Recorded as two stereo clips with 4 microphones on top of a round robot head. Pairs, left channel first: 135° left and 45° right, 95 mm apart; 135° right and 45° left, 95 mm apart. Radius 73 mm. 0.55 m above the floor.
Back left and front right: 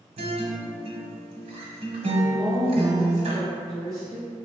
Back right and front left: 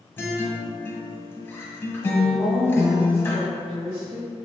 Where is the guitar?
65° right, 1.0 m.